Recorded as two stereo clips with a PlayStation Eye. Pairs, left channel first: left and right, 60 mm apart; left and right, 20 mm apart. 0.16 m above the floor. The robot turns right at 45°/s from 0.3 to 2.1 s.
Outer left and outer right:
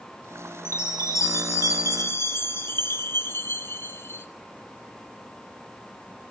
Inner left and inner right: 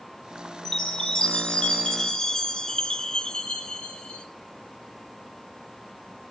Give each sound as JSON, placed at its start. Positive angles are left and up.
{"t": 0.7, "sound": "a chime", "azimuth_deg": 55, "distance_m": 0.9}